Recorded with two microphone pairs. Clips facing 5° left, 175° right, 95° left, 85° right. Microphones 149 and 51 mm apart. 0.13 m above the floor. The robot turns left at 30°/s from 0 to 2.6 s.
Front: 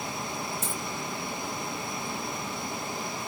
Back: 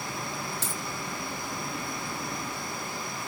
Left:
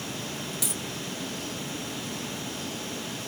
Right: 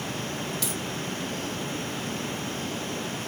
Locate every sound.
0.6 s a dropped coin: 175° left, 1.7 m; by 0.8 s 170° left, 1.7 m